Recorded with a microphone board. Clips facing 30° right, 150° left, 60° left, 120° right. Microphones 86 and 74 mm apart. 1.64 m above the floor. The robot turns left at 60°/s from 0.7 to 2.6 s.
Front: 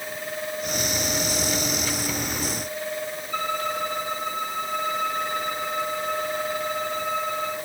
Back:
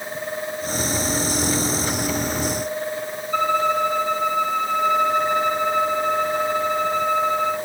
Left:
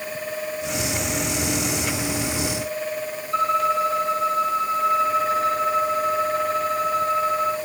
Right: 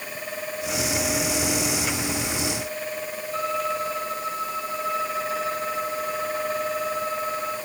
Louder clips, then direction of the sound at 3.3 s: Back 8 dB, left 7 dB; 85° left.